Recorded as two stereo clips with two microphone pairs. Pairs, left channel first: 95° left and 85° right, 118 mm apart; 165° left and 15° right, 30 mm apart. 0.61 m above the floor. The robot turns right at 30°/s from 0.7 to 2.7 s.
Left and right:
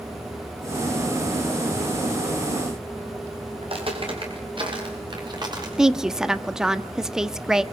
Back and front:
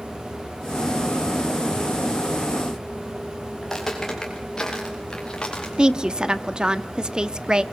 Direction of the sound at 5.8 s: Straight ahead.